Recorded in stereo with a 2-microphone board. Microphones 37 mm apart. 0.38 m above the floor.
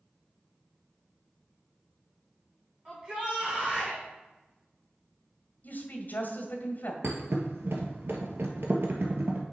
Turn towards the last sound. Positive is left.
turn(degrees=-75)  # may be behind; listen again after turning